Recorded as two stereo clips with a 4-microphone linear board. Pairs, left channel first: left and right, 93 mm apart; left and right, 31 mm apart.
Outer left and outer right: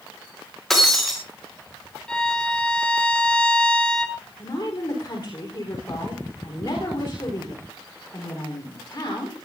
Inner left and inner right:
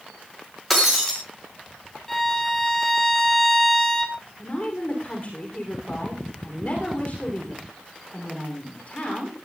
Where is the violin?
10° left (ahead or behind), 1.2 m.